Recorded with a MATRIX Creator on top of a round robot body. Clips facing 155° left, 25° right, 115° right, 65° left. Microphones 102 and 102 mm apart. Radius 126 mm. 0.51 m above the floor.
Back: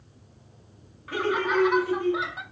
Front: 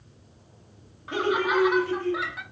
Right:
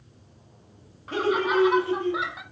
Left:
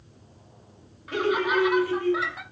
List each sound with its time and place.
1.1 s laughter: 75° right, 1.0 m; by 2.4 s 175° left, 0.9 m